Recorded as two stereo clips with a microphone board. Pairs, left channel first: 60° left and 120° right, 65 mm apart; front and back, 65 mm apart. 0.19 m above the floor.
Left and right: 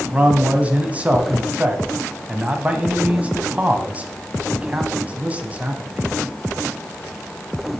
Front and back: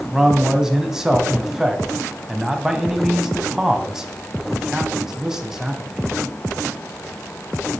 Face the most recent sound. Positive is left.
turn(degrees=-115)